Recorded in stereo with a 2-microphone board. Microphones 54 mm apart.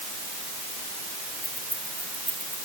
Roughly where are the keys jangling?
Right.